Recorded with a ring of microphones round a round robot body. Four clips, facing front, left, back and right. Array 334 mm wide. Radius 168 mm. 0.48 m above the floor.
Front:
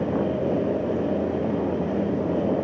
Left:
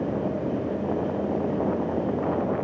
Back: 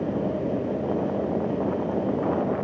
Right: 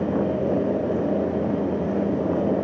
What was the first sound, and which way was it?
Only background noise.